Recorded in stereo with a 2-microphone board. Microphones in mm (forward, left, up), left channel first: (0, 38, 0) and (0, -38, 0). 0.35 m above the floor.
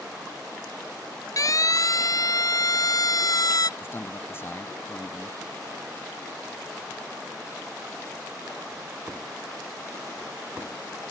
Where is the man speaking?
35° left (ahead or behind).